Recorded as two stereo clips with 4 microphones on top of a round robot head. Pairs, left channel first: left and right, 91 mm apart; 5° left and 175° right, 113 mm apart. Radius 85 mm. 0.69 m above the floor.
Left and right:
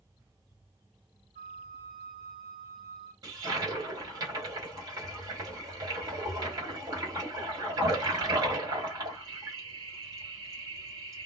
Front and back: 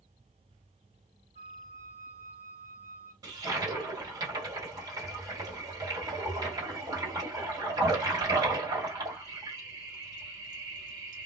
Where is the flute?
125° right, 1.7 m.